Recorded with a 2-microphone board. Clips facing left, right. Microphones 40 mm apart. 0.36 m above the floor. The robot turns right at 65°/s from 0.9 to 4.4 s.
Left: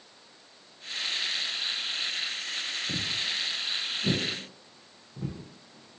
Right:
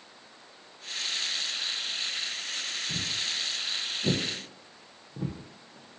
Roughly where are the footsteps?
Left.